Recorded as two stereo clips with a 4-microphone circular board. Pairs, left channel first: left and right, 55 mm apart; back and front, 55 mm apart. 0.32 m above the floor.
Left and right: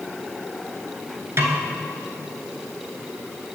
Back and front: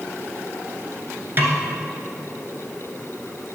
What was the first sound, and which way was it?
A snare drum, 50° right.